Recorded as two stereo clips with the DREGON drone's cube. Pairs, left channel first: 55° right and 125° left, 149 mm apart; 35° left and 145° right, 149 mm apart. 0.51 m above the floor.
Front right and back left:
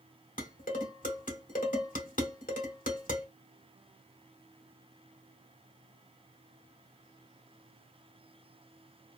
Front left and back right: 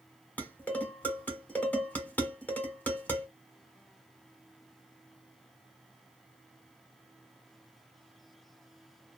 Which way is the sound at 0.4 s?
45° right.